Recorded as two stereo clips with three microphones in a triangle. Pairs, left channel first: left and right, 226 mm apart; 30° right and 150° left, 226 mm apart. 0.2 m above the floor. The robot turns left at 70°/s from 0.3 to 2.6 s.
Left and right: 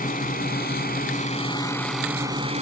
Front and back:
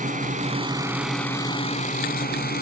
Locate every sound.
0.0 s a drone: 115° left; by 2.6 s 45° right